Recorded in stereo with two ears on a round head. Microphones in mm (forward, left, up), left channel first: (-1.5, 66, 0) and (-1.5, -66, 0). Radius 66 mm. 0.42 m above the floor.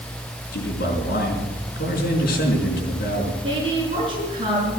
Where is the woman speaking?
35° right (ahead or behind), 6.5 m.